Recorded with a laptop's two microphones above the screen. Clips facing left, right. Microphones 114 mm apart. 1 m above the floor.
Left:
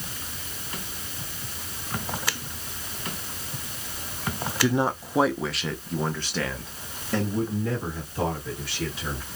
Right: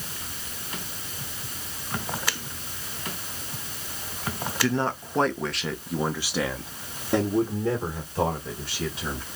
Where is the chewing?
No chewing in this recording.